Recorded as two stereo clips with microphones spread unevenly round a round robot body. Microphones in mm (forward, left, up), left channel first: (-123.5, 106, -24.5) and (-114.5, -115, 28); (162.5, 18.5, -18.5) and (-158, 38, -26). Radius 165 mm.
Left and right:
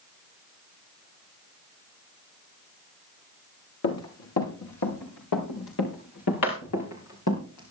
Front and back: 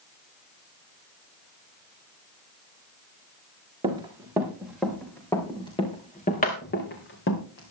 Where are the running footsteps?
100° left, 5 m; by 7.7 s 45° left, 5.5 m.